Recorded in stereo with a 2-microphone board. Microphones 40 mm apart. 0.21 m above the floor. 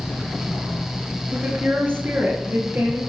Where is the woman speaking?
45° right (ahead or behind), 3.5 m; by 3.0 s 65° right (ahead or behind), 5.5 m.